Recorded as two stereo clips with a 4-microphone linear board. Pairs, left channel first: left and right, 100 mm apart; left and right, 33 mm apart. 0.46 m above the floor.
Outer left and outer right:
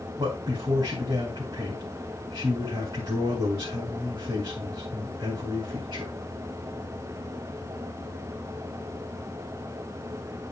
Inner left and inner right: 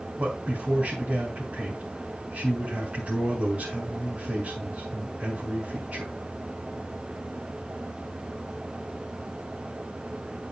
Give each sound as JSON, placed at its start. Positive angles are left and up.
{"t": 0.2, "sound": "a man speaking", "side_deg": -45, "distance_m": 3.5}